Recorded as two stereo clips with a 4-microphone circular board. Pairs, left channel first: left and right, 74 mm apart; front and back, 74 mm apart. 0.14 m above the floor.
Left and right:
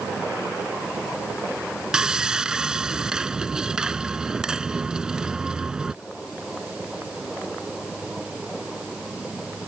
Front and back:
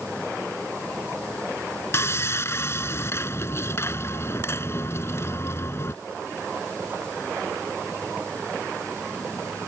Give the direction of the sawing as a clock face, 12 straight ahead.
1 o'clock.